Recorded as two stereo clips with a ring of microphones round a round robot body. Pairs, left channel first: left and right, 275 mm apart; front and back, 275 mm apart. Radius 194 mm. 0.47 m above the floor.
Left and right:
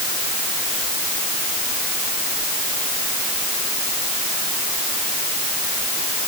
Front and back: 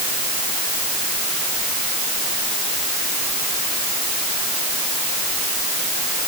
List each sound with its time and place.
Only background noise.